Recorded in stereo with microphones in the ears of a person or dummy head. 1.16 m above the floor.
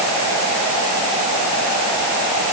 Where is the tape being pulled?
No tape being pulled in this recording.